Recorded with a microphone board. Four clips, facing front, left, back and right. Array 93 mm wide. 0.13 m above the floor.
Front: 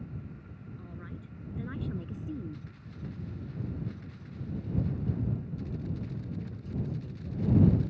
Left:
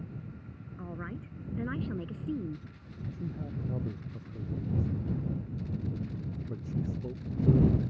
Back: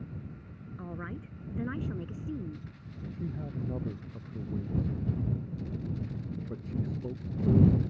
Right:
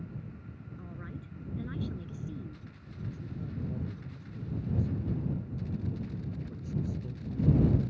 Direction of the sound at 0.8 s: 145° left.